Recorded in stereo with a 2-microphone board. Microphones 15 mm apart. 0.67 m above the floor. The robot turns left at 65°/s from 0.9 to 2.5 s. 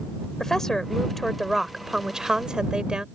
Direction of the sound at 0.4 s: 35° left.